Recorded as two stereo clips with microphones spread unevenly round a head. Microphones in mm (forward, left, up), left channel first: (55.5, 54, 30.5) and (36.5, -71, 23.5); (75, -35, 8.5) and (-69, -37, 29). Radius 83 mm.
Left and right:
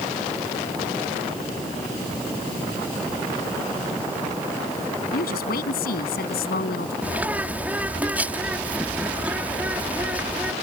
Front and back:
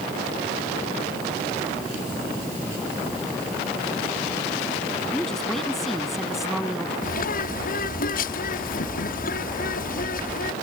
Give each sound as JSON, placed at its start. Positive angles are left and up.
{"t": 5.1, "sound": "a woman speaking", "azimuth_deg": 90}
{"t": 7.0, "sound": "a bird", "azimuth_deg": -20}